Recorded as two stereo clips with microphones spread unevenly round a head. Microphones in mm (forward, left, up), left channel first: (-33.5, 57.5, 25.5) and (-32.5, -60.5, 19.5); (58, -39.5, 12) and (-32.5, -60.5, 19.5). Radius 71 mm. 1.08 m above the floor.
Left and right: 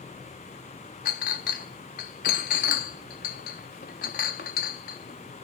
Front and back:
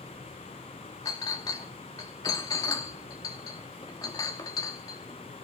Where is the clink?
80° left, 1.0 m.